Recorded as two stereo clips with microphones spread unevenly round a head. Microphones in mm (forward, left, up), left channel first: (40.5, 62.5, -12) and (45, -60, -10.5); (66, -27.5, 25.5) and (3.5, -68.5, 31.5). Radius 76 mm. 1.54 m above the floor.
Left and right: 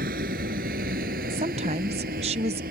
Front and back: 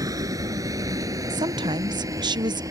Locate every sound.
0.0 s a vehicle: 110° right; by 2.7 s 105° right
1.3 s a woman speaking: 135° right